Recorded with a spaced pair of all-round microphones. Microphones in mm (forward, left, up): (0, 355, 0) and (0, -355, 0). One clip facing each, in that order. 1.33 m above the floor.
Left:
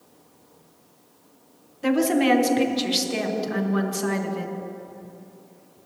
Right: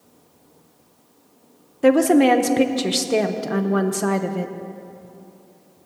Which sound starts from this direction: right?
A woman speaking, at 1.8 s.